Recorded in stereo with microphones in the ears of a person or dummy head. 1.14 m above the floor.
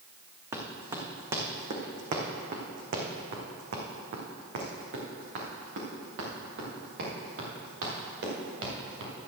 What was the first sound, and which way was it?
Running footsteps, 20° right (ahead or behind).